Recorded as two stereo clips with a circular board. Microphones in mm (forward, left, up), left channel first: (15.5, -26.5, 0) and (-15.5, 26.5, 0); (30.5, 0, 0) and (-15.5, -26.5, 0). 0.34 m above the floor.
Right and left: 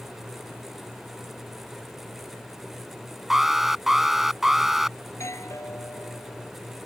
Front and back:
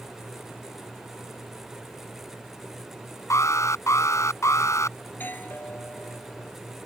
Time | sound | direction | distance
3.3 | an alarm | 35° left | ?
5.1 | a doorbell | 25° right | ?